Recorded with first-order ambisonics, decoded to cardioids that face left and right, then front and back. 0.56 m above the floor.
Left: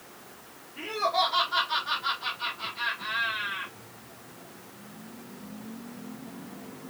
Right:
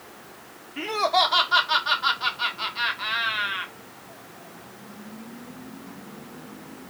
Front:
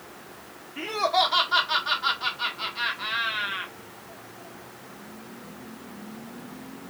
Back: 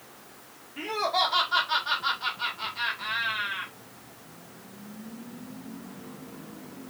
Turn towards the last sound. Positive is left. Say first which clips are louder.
# right 5 dB, front 3 dB
turn(degrees=-70)